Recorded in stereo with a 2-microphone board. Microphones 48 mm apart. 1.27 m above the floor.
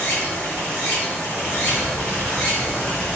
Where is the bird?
70° left (ahead or behind), 1.3 m.